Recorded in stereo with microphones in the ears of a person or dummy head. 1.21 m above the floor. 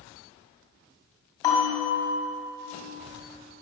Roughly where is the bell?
Left.